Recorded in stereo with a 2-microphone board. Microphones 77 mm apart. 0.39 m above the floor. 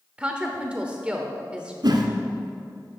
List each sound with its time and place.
0.2 s a woman speaking: 15° right (ahead or behind), 0.8 m
1.8 s a whoosh: 70° right (ahead or behind), 1.3 m